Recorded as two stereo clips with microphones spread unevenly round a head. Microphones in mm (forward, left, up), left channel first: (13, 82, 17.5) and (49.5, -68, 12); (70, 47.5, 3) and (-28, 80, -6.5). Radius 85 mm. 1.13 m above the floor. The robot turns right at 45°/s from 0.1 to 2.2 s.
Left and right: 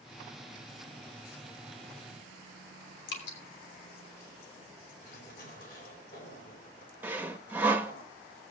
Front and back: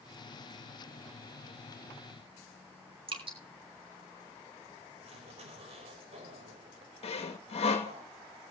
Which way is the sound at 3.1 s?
130° left.